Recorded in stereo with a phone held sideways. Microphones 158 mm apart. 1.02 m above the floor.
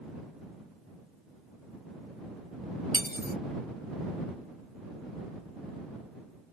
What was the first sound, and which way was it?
Cutlery clinking, 80° left.